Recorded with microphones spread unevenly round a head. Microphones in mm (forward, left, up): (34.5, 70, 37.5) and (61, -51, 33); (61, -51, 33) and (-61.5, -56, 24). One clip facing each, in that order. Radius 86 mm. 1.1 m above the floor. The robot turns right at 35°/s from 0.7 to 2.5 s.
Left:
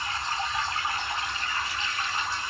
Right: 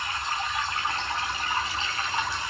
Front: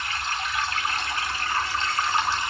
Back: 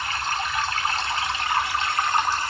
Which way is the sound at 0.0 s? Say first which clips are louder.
Even, back 3 dB; 175° left.